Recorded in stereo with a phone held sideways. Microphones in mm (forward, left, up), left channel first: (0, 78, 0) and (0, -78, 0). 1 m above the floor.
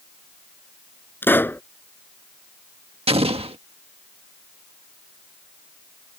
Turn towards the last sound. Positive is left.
turn(degrees=-40)  # may be behind; listen again after turning